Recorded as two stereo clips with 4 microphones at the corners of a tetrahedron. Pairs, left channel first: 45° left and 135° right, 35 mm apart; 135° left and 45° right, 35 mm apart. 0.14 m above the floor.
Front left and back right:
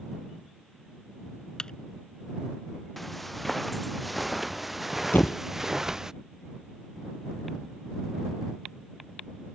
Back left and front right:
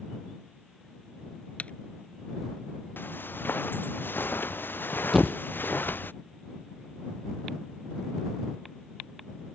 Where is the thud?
40° left.